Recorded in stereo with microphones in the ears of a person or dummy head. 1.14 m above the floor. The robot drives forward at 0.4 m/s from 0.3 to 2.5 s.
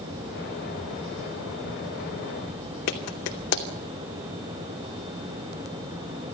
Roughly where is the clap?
Left.